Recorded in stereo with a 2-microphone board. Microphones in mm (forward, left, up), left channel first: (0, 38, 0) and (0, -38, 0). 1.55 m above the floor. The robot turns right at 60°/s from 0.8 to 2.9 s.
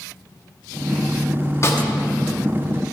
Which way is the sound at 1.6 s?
40° left (ahead or behind).